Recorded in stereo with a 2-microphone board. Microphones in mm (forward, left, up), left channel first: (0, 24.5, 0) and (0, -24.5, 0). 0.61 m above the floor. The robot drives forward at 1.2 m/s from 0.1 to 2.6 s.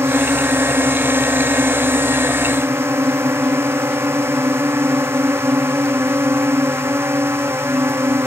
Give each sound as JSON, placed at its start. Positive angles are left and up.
{"t": 0.0, "sound": "a drone", "side_deg": -65}